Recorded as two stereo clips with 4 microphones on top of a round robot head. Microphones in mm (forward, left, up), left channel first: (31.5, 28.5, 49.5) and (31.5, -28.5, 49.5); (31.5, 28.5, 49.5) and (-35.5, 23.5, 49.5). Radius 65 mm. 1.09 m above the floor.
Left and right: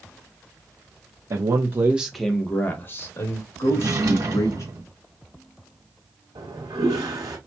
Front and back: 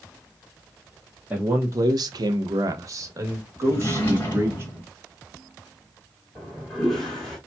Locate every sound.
1.3 s a man speaking: 110° right, 0.8 m; by 4.6 s 130° left, 2.5 m
3.6 s a drawer: 65° right, 1.2 m
6.3 s a toilet flushing: 85° right, 1.5 m